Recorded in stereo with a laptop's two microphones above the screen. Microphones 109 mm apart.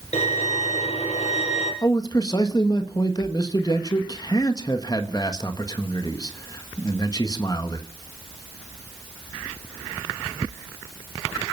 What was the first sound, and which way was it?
A violin, 85° left.